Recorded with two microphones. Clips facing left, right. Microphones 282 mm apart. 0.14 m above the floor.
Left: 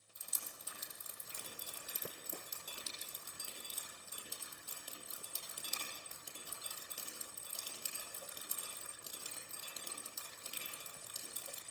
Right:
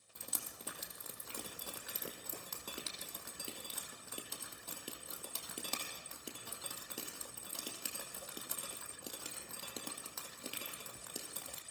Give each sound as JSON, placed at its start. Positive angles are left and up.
{"t": 0.1, "sound": "dripping", "side_deg": -70, "distance_m": 3.0}